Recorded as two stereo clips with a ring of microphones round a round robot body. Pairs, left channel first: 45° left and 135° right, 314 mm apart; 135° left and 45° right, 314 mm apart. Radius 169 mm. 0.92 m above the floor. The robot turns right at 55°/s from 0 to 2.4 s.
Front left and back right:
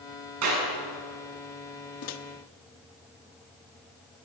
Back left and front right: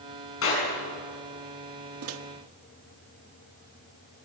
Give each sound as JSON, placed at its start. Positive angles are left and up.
{"t": 0.4, "sound": "a clap", "azimuth_deg": -175, "distance_m": 8.0}
{"t": 2.0, "sound": "a microwave", "azimuth_deg": 0, "distance_m": 1.1}